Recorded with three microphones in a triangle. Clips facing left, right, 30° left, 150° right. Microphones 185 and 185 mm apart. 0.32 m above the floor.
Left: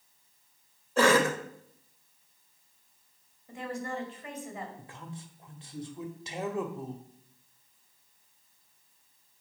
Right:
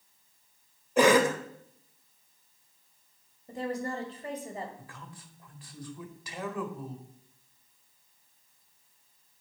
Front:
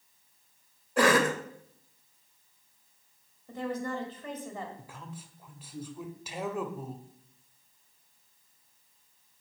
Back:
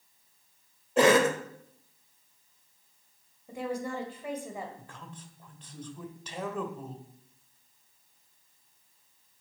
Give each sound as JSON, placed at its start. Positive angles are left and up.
{"t": 1.0, "sound": "a cough", "azimuth_deg": -135, "distance_m": 0.9}
{"t": 3.5, "sound": "a woman speaking", "azimuth_deg": -80, "distance_m": 1.5}
{"t": 4.8, "sound": "a man speaking", "azimuth_deg": 100, "distance_m": 0.9}